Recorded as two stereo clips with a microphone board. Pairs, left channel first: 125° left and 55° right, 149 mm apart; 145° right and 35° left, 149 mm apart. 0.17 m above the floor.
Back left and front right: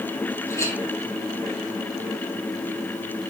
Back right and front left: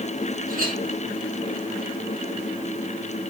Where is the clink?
55° left, 4 m.